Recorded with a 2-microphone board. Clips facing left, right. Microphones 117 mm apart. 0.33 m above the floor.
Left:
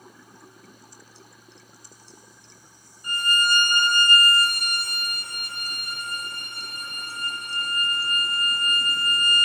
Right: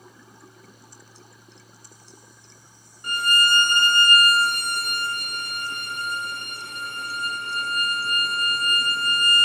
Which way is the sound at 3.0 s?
75° right (ahead or behind).